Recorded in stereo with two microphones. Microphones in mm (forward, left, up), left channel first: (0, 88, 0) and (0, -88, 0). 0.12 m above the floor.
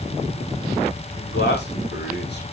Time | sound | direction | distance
1.1 | a man speaking | 80° left | 7.5 m